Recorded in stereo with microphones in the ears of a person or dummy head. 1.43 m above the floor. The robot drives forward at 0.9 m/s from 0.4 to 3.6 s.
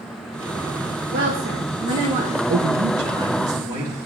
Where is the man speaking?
40° right (ahead or behind), 0.8 m; by 4.0 s 15° right (ahead or behind), 1.6 m.